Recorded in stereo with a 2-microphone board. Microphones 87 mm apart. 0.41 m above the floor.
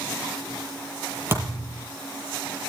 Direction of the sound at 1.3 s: 30° right (ahead or behind).